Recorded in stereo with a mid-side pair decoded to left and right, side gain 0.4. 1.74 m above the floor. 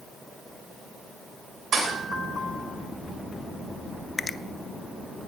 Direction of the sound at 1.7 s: 65° right.